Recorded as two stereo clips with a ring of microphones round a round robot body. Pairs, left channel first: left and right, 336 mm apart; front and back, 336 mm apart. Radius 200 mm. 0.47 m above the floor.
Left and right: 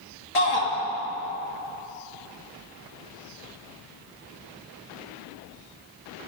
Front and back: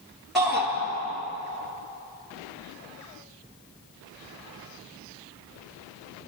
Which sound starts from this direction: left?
A shout, at 0.3 s.